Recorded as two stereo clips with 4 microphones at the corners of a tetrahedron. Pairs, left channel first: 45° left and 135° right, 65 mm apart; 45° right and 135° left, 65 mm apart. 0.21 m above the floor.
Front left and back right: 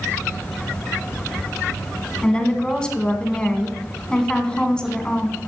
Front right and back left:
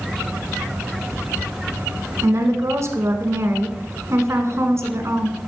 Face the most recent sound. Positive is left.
turn(degrees=120)